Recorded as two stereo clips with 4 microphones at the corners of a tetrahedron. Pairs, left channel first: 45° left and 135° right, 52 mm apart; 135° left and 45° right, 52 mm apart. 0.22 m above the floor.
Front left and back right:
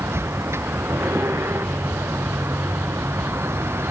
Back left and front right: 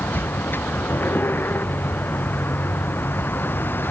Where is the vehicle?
175° right.